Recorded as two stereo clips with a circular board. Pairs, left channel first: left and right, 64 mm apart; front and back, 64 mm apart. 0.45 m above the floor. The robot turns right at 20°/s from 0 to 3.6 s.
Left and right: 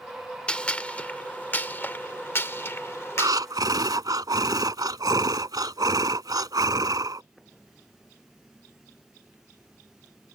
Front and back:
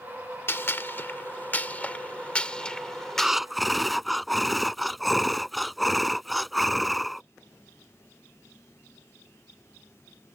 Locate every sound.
0.5 s a gunshot: 25° left; by 3.4 s 80° left
3.2 s breathing: 100° right; by 7.2 s 90° right